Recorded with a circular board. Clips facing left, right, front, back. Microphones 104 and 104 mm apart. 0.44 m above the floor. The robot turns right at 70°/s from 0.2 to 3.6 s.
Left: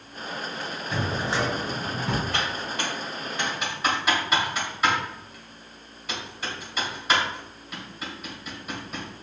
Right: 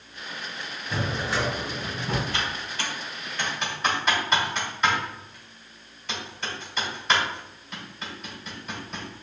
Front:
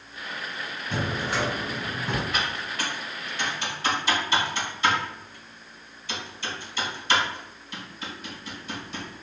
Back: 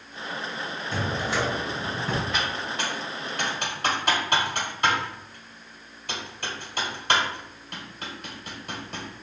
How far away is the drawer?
About 1.9 m.